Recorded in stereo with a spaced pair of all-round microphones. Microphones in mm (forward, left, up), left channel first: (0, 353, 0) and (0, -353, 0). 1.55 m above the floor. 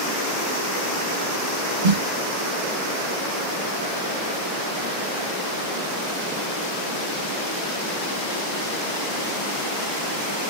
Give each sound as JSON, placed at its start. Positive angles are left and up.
{"t": 1.8, "sound": "a snare drum", "side_deg": -80, "distance_m": 1.8}